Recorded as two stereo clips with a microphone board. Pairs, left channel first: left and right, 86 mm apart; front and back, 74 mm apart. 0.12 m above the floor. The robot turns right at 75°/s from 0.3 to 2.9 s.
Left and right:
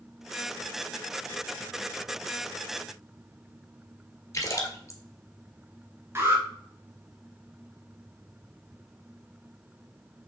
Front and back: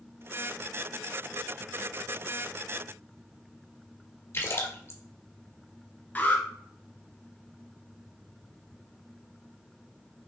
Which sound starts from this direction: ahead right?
An alarm, at 6.2 s.